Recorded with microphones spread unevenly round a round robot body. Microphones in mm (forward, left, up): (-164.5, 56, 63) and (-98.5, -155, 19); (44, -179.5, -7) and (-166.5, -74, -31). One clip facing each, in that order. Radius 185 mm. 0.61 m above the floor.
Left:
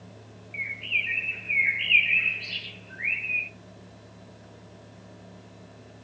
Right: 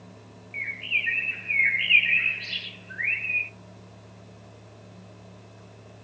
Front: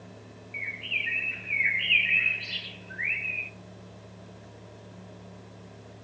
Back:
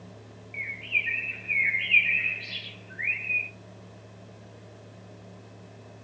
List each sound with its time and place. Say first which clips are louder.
0.5 s a bird: even, even; 115° right, 0.5 m